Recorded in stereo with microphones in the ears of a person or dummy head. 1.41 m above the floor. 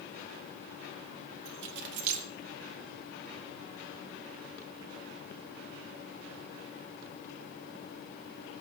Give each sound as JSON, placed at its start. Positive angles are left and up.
{"t": 1.4, "sound": "keys jangling", "side_deg": -50, "distance_m": 0.7}